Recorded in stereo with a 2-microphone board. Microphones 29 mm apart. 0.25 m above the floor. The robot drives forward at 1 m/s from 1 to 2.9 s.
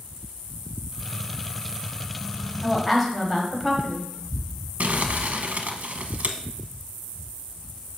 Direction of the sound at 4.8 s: 60° right (ahead or behind).